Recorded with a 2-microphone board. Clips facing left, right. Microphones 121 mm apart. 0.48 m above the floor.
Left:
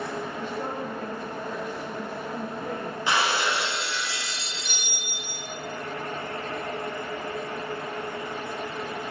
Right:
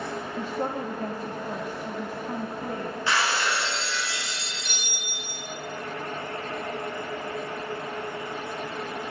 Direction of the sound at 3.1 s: 15° left (ahead or behind).